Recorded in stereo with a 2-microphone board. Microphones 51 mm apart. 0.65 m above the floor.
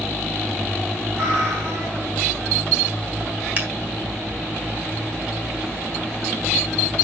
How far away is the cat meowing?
About 7.5 m.